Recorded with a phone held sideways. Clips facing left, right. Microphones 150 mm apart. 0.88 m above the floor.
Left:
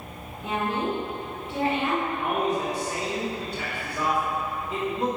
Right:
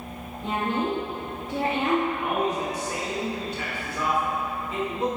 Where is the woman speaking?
25° right (ahead or behind), 1.7 m; by 2.0 s 50° right (ahead or behind), 1.3 m.